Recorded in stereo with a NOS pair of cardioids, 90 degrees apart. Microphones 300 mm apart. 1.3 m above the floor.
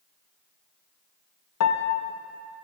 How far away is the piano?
About 1.2 m.